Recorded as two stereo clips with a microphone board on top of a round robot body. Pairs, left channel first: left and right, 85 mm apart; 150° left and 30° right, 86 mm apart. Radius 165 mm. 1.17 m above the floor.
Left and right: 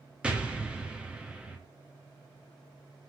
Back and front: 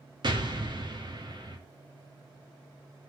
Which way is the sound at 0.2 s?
15° right.